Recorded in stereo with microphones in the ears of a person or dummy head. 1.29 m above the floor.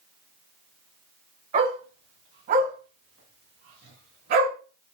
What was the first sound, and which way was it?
A dog barking, 30° right (ahead or behind).